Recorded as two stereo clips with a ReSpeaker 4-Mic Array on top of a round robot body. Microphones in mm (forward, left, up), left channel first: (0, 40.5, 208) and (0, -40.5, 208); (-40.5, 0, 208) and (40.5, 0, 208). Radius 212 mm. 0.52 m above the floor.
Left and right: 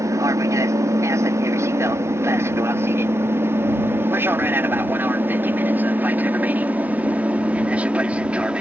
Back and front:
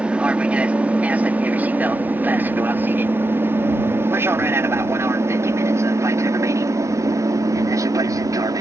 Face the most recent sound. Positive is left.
turn(degrees=-20)